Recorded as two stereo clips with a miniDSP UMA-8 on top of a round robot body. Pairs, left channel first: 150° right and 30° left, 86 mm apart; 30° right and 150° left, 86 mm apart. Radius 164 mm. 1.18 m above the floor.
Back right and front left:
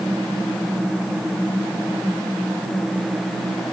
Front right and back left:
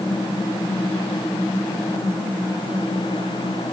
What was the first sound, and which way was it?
Only background noise.